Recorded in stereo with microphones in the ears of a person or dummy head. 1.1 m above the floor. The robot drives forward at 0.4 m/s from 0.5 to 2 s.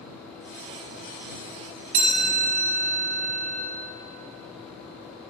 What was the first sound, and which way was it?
A chime, 45° right (ahead or behind).